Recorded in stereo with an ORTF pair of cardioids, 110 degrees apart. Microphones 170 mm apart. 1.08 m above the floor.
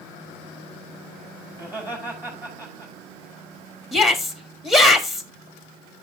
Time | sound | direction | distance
1.5 | laughter | 10° right | 4.5 m
3.9 | a shout | straight ahead | 1.6 m